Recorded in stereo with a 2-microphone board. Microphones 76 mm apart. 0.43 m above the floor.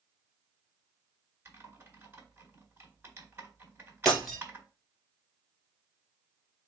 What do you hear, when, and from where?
1.4 s typing on a keyboard: 35° right (ahead or behind), 1.8 m
4.0 s breaking glass: 5° left (ahead or behind), 1.5 m